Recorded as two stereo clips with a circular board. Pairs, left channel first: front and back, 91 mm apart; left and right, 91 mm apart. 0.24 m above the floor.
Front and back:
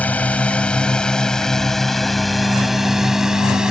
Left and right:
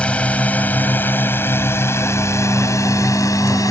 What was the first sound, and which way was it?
A drone, 40° left.